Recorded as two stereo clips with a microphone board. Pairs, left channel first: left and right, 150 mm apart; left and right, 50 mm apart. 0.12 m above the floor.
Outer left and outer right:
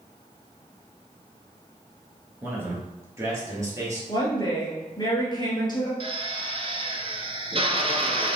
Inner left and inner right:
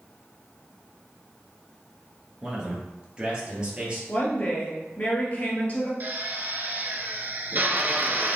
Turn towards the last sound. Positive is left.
turn(degrees=-40)  # may be behind; listen again after turning